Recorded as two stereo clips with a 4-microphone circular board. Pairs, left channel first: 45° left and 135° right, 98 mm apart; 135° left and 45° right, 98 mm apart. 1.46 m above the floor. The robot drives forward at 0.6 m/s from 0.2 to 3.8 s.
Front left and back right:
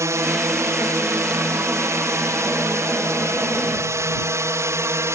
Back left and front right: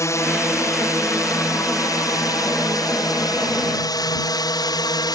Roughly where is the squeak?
I don't hear a squeak.